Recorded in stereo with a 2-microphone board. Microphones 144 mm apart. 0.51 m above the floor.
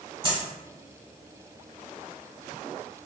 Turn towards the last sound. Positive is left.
turn(degrees=-30)  # may be behind; listen again after turning